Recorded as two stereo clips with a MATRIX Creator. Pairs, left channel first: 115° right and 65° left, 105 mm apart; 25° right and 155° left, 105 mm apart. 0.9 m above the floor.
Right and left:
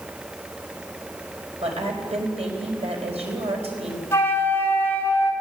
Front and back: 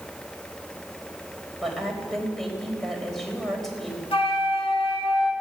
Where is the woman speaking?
65° left, 4.5 m.